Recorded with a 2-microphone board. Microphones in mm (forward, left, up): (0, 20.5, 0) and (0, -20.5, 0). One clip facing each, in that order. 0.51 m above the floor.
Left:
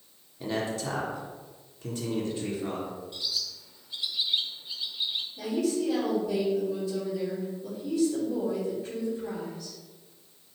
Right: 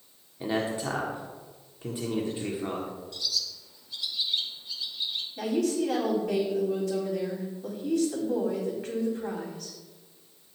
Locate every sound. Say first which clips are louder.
0.4 s a man speaking: right 2 dB; 20° right (ahead or behind), 1.4 m
3.1 s a bird: right 1 dB; 25° left (ahead or behind), 1.2 m
5.4 s a woman speaking: right 2 dB; 65° right (ahead or behind), 4 m